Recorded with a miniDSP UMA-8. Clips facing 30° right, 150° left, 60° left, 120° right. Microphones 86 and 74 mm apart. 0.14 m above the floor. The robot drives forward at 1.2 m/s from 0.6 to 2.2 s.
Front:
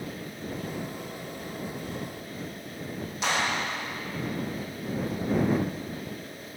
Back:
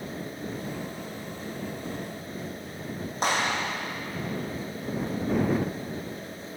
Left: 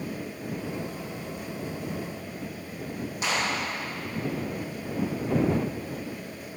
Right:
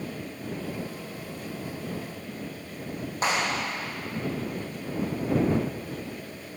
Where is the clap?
165° right, 4.5 m.